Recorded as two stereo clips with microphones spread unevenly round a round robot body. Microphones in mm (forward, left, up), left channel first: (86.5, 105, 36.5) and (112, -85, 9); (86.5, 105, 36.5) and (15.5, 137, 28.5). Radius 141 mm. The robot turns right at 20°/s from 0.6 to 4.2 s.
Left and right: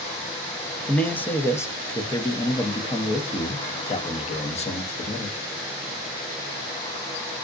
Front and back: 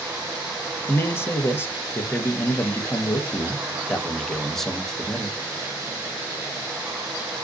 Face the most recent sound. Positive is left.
turn(degrees=70)